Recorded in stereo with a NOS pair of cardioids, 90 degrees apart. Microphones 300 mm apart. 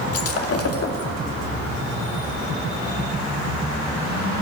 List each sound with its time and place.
0.1 s breaking glass: 55° left, 2 m